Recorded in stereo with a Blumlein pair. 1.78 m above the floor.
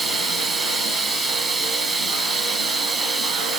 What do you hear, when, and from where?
0.0 s running water: 10° right